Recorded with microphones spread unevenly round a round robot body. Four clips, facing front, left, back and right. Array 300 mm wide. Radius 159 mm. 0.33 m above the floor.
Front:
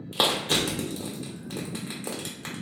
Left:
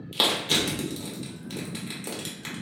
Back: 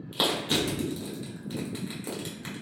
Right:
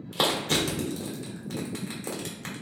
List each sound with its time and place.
0.1 s crushing: 25° right, 1.3 m